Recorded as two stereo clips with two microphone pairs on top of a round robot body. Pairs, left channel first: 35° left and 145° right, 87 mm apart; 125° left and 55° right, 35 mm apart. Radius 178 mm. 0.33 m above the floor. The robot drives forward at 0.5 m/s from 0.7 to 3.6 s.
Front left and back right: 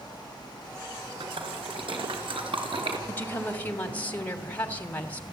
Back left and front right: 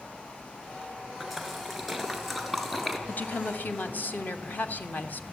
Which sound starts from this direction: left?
A woman speaking, at 3.1 s.